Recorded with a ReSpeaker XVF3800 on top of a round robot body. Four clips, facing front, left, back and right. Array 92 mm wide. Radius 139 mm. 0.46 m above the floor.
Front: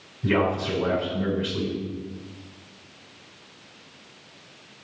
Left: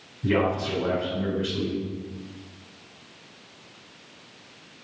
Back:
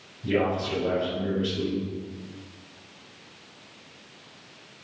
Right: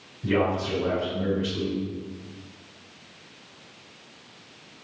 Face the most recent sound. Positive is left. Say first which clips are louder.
# even, front 2 dB
turn(degrees=25)